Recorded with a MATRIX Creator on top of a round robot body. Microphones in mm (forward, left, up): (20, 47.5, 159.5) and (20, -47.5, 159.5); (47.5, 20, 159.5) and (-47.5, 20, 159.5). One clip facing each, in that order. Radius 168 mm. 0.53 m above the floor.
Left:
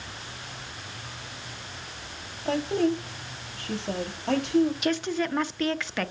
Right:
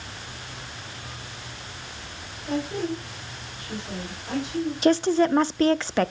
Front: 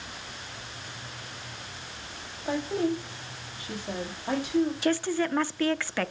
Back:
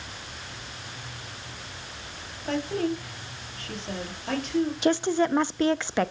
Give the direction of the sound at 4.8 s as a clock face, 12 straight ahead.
4 o'clock.